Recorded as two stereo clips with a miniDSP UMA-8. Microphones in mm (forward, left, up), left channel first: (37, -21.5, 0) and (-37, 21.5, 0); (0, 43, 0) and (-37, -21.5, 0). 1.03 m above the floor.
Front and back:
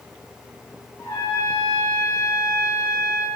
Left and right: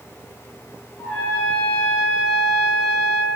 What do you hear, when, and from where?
1.0 s a trumpet: 10° left, 1.7 m